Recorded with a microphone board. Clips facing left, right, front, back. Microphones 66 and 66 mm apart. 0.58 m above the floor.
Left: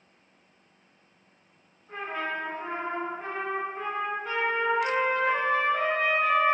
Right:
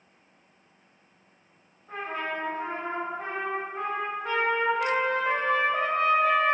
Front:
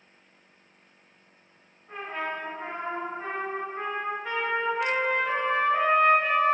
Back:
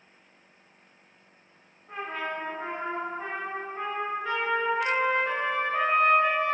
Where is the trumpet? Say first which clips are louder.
Even, even; 85° right, 1.4 m.